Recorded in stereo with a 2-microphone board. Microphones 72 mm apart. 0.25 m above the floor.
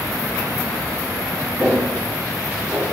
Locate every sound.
1.6 s footsteps: 10° right (ahead or behind), 2.0 m; by 2.9 s 35° right (ahead or behind), 1.9 m